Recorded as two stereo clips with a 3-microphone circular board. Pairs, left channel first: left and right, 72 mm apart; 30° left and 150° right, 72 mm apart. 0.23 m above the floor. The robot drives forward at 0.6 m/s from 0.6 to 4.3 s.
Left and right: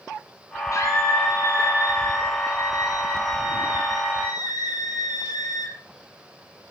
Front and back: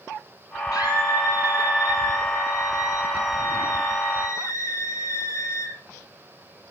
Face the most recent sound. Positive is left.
turn(degrees=80)